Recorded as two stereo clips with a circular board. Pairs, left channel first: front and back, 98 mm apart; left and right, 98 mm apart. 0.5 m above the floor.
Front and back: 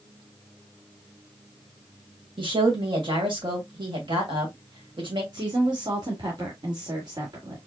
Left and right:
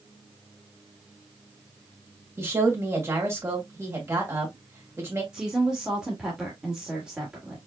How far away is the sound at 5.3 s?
About 1.7 m.